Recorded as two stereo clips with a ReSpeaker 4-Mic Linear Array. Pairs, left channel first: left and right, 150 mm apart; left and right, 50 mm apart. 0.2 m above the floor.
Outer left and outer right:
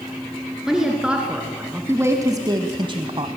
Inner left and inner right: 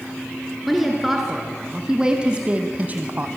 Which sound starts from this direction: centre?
A woman speaking, at 0.7 s.